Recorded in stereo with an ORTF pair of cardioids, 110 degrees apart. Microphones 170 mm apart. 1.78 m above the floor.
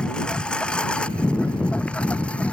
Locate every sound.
0.0 s a lawn mower: 5° left